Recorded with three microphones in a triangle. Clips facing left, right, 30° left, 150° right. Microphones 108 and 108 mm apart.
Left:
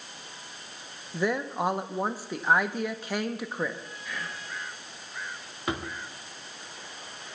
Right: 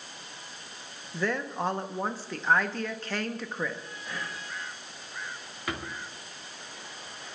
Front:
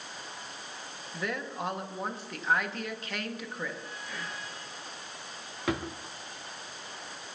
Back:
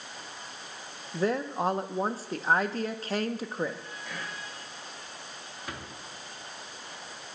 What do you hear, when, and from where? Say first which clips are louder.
1.1 s a woman speaking: left 2 dB, back 7 dB; 165° left, 0.8 m
4.0 s whispering: even, back 2 dB; 145° right, 5 m
5.7 s a drawer: left 3 dB, front 11 dB; 25° left, 0.9 m